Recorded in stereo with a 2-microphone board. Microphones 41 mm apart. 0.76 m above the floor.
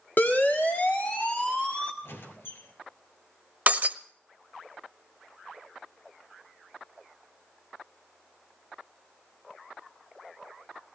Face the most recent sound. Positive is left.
turn(degrees=-45)  # may be behind; listen again after turning